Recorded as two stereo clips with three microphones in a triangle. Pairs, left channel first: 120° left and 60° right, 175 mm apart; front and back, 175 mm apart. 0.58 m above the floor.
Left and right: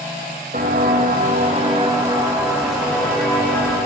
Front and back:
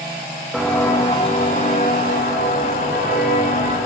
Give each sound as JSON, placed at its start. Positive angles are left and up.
{"t": 0.5, "sound": "footsteps", "azimuth_deg": -90, "distance_m": 1.2}